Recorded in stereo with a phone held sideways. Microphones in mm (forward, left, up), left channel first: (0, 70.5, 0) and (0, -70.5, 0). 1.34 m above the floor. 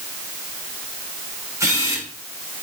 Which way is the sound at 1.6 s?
20° right (ahead or behind).